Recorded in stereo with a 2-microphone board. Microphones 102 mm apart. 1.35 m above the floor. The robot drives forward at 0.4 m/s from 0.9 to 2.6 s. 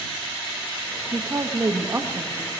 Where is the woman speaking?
35° right (ahead or behind), 1.1 m; by 2.5 s 25° right (ahead or behind), 1.6 m.